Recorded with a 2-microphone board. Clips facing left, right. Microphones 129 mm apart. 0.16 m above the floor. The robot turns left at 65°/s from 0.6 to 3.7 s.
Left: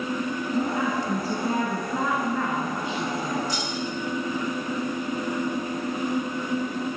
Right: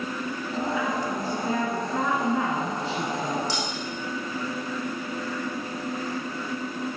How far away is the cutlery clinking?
About 5.5 m.